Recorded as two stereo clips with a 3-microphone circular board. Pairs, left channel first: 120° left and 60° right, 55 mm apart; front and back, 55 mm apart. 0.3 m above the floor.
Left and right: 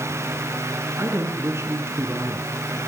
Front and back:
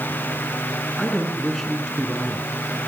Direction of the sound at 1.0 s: 85° right.